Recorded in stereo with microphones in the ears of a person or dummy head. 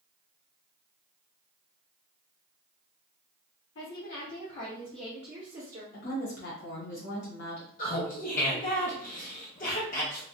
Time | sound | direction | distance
3.8 | a woman speaking | 70° left (ahead or behind) | 0.9 m
5.9 | a woman speaking | 60° left (ahead or behind) | 1.3 m
7.8 | laughter | 40° left (ahead or behind) | 0.8 m